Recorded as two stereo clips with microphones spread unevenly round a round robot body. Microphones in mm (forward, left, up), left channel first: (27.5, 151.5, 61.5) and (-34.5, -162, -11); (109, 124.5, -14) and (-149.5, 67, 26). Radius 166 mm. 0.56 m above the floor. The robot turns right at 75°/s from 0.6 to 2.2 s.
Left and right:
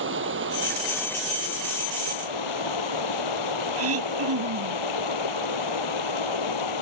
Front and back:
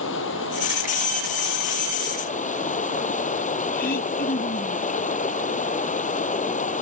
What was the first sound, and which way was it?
Running water, 45° right.